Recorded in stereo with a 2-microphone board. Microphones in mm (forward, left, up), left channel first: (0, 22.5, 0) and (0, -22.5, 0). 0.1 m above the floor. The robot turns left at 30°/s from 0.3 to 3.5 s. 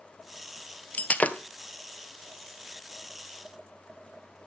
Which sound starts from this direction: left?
Breaking glass, at 0.9 s.